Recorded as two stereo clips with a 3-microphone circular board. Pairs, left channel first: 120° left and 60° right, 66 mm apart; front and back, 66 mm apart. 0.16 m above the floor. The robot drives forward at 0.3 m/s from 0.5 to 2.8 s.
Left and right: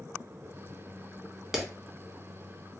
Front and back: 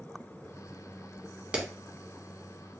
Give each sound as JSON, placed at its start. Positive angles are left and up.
{"t": 1.5, "sound": "a clap", "azimuth_deg": -135, "distance_m": 1.0}